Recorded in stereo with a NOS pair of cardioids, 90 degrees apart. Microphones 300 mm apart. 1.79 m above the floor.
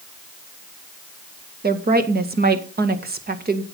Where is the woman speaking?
30° right, 1.9 m.